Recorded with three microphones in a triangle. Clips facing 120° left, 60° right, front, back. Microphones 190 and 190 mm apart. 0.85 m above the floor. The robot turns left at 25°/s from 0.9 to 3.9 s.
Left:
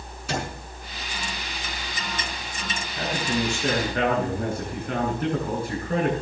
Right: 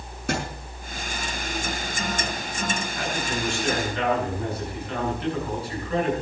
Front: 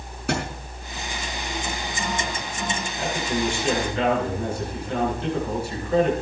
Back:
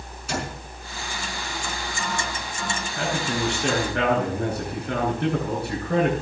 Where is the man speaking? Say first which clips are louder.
Left 7 dB, even; straight behind, 9.5 m; by 6.1 s 160° left, 9.5 m.